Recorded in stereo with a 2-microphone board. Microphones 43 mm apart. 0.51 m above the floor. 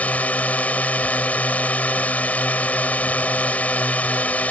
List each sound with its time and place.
0.0 s a drone: 40° left (ahead or behind)